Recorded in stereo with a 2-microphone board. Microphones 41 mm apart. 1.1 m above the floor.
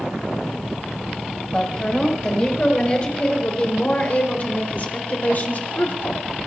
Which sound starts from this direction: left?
A woman speaking, at 1.5 s.